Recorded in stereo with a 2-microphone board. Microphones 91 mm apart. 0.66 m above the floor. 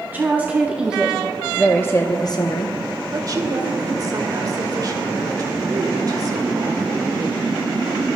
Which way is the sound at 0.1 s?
20° right (ahead or behind).